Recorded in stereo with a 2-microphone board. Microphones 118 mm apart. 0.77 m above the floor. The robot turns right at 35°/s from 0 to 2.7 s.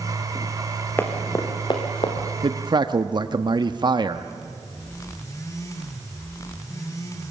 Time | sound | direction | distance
1.0 | running footsteps | 20° left (ahead or behind) | 3.5 m
2.4 | a man speaking | 50° right (ahead or behind) | 0.9 m